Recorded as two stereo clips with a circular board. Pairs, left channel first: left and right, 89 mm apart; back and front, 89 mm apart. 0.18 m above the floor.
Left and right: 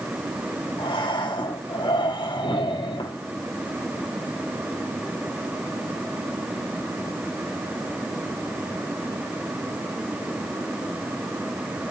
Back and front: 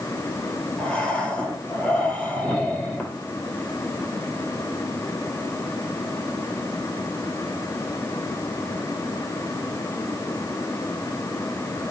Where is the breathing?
105° left, 6 m.